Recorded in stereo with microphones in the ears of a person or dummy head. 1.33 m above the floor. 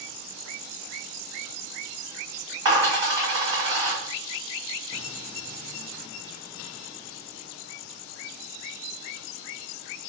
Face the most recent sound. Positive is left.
turn(degrees=-25)  # may be behind; listen again after turning